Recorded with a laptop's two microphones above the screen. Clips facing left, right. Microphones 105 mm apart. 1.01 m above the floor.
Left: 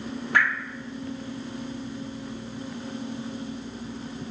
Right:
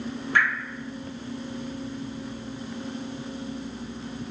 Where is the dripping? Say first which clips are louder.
Even; 70° left (ahead or behind), 1.9 m.